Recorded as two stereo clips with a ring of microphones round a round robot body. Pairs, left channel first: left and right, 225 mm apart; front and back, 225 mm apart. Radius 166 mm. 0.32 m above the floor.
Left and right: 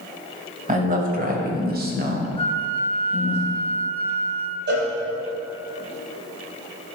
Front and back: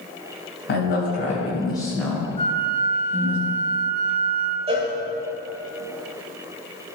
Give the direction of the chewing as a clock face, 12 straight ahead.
I don't hear chewing.